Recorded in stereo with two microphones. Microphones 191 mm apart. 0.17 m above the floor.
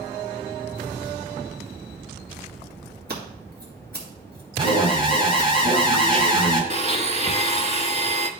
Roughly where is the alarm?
Right.